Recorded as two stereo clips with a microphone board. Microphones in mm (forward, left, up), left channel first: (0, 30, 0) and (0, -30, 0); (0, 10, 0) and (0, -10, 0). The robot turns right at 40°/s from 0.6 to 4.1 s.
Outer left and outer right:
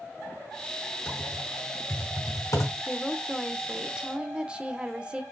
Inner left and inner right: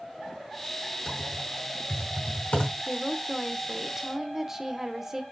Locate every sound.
1.1 s typing on a keyboard: 15° left (ahead or behind), 3.5 m; by 2.7 s 70° left (ahead or behind), 3.5 m
2.8 s a woman speaking: 165° left, 0.8 m; by 5.2 s 145° right, 0.8 m